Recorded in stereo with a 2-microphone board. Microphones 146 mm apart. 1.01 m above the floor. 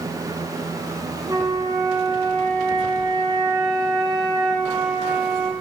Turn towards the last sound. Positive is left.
turn(degrees=-30)  # may be behind; listen again after turning